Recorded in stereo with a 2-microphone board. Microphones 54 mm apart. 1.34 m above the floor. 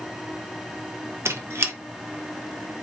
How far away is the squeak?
About 0.6 m.